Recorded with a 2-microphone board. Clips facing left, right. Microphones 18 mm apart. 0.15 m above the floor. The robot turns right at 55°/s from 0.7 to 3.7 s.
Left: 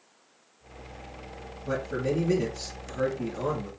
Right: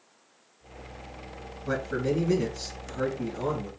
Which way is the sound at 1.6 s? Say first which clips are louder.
Right 1 dB; 50° right.